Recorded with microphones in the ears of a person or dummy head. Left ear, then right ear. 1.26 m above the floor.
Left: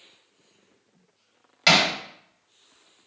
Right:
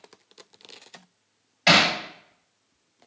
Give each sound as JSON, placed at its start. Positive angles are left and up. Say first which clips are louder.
{"t": 1.7, "sound": "hammering", "louder": "right 1 dB", "side_deg": 45, "distance_m": 1.5}